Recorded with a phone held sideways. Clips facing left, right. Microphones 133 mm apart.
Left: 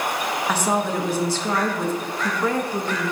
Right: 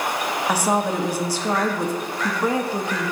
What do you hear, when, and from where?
0.5 s a woman speaking: 10° right (ahead or behind), 0.9 m